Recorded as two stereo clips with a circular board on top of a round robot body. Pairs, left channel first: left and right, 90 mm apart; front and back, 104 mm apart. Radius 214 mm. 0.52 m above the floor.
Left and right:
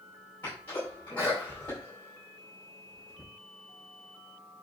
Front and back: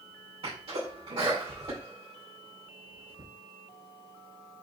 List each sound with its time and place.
0.4 s a sneeze: 155° left, 4.5 m